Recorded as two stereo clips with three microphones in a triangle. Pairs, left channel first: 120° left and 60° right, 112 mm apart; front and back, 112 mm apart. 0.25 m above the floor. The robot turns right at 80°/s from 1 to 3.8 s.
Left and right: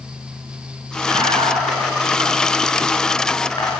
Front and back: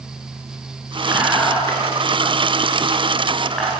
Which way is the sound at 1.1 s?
115° right.